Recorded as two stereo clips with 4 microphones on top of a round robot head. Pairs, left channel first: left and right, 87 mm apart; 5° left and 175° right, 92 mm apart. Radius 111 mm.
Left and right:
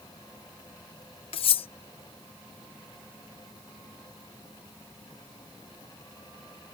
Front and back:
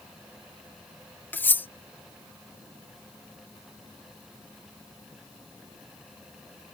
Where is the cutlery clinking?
75° left.